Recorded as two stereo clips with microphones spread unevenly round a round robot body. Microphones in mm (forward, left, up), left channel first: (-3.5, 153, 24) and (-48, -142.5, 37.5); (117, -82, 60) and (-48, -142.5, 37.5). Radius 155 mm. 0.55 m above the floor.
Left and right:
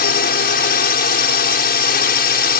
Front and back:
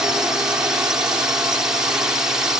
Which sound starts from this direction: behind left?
A drone, at 0.0 s.